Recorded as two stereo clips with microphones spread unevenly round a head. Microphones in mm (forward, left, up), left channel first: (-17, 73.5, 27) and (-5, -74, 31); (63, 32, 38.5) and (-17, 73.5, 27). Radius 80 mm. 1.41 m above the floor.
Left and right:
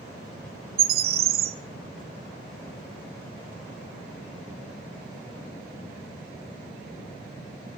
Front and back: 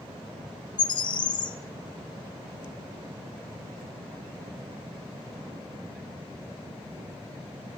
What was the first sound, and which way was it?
A bird, 75° right.